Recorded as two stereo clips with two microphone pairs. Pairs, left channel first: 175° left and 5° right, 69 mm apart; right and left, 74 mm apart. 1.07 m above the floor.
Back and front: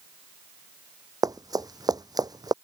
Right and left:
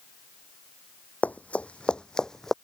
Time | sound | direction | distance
1.2 | running footsteps | 20° right | ?